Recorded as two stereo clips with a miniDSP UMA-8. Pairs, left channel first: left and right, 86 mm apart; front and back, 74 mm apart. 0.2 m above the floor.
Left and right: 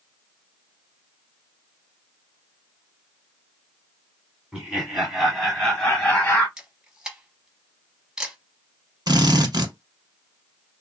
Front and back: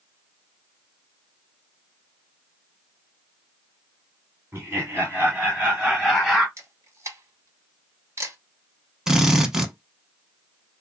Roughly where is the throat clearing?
I don't hear throat clearing.